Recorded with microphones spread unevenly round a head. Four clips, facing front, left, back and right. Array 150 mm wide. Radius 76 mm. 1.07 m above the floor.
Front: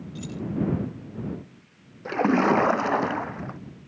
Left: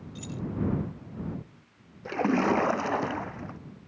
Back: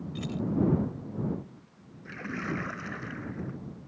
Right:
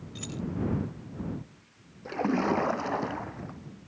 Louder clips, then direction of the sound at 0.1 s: Right 1 dB, back 1 dB; 165° right.